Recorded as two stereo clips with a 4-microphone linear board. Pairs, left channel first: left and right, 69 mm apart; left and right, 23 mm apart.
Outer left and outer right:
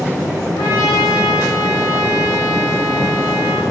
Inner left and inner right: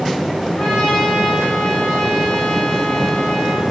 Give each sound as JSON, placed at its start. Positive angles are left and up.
{"t": 0.6, "sound": "a trumpet", "side_deg": 80, "distance_m": 7.5}